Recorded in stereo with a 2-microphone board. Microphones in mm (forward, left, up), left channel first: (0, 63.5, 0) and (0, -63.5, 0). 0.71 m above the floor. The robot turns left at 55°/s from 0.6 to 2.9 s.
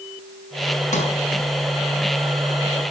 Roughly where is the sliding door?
Left.